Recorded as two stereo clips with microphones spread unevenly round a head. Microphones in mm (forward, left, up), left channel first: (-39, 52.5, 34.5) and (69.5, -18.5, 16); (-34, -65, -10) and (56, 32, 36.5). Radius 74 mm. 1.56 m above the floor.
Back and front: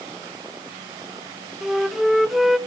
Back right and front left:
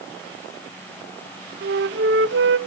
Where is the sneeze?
No sneeze in this recording.